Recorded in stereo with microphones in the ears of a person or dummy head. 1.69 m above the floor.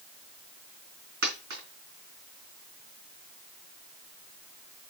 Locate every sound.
1.2 s a dropped coin: 60° right (ahead or behind), 3 m